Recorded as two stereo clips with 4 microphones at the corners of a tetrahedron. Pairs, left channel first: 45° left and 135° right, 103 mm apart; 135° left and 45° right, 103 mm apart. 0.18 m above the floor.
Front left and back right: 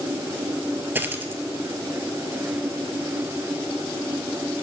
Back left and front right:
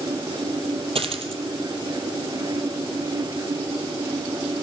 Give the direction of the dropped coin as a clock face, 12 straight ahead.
2 o'clock.